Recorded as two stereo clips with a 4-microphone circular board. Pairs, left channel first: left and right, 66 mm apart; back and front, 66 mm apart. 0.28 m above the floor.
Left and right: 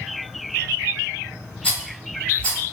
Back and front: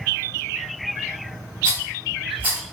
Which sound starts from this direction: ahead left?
A rattle, at 1.6 s.